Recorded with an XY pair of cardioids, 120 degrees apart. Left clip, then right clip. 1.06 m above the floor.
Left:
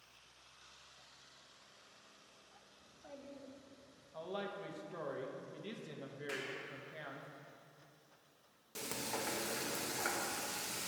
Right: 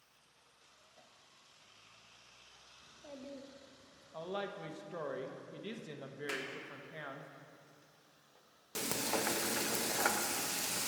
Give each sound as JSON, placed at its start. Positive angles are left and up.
{"t": 2.8, "sound": "a child speaking", "azimuth_deg": -25, "distance_m": 1.7}
{"t": 4.1, "sound": "a woman speaking", "azimuth_deg": -25, "distance_m": 1.1}
{"t": 6.3, "sound": "a clap", "azimuth_deg": -55, "distance_m": 2.0}
{"t": 8.8, "sound": "frying", "azimuth_deg": -50, "distance_m": 0.8}